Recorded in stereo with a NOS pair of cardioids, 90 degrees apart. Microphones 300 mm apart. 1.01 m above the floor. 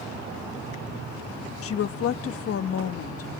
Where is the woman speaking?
50° left, 1.1 m.